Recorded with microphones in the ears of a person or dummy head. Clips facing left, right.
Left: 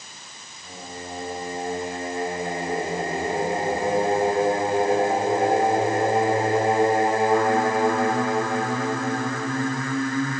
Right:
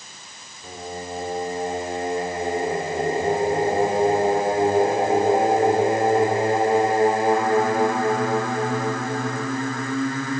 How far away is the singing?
About 3.5 m.